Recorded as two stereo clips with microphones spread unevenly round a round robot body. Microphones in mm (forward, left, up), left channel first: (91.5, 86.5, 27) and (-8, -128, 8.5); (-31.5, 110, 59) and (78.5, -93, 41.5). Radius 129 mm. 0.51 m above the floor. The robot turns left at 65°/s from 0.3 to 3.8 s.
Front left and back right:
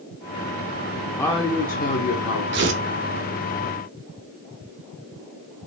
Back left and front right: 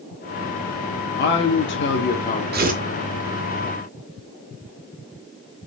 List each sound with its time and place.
1.2 s a man speaking: 150° left, 1.1 m; by 2.4 s 65° left, 1.1 m
2.5 s tearing paper: 95° right, 1.9 m; by 2.8 s 110° right, 1.9 m